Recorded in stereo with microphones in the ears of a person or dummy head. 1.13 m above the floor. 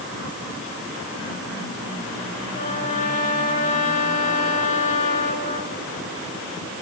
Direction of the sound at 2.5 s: 40° left (ahead or behind).